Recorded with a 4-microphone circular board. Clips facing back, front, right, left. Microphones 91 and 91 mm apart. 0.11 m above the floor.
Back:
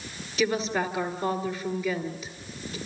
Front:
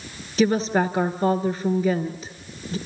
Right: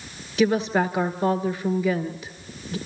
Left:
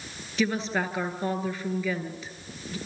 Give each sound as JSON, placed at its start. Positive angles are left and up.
{"t": 0.4, "sound": "a woman speaking", "azimuth_deg": -25, "distance_m": 1.6}